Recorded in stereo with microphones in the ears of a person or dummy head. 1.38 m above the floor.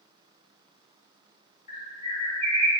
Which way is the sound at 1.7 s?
40° left (ahead or behind).